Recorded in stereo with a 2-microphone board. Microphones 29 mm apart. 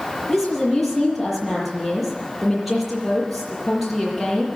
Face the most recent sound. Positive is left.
turn(degrees=0)  # may be behind; listen again after turning